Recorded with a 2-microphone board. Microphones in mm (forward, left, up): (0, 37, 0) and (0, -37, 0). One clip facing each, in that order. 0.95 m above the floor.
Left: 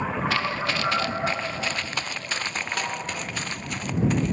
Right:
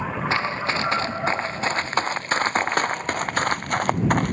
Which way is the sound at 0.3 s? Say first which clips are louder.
Right 2 dB; 30° right (ahead or behind).